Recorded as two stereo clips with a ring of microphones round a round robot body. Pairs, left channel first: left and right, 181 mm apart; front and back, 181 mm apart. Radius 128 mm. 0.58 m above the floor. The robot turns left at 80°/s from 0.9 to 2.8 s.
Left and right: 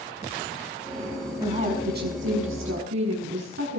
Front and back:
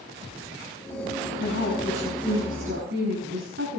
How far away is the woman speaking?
About 6 m.